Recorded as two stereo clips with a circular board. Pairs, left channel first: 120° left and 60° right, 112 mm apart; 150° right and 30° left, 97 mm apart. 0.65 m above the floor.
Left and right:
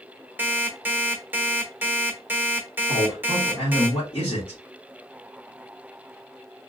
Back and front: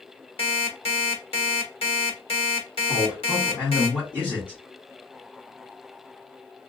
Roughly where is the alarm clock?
Behind right.